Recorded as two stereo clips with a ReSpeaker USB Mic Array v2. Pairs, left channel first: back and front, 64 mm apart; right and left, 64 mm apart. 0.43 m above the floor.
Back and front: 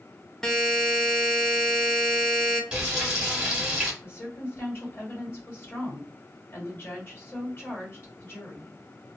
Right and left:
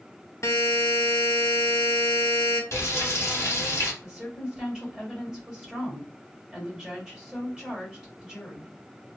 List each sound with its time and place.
0.4 s a buzzer: 100° right, 0.5 m
2.7 s frying: 70° right, 1.3 m
4.0 s a woman speaking: 160° left, 1.8 m